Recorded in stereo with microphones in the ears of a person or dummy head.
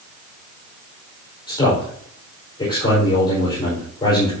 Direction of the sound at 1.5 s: 20° left (ahead or behind).